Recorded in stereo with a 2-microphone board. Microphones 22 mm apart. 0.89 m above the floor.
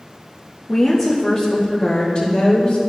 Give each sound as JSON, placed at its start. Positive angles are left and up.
{"t": 0.7, "sound": "a woman speaking", "side_deg": 5, "distance_m": 1.1}